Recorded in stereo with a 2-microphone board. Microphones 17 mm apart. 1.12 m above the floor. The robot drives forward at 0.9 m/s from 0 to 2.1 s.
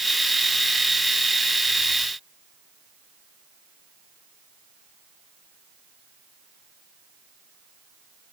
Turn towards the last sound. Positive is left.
No sound to turn to.